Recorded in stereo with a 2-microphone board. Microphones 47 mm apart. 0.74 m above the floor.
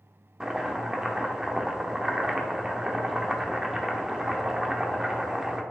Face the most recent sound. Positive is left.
turn(degrees=-15)  # may be behind; listen again after turning